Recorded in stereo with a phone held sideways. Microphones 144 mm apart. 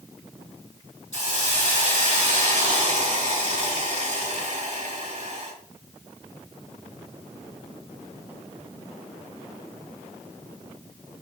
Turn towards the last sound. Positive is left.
turn(degrees=-55)  # may be behind; listen again after turning